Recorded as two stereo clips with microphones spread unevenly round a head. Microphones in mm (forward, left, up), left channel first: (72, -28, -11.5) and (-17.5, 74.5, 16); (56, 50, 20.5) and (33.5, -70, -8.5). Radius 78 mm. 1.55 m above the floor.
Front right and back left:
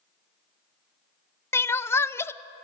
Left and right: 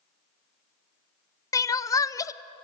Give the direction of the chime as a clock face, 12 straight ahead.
No chime in this recording.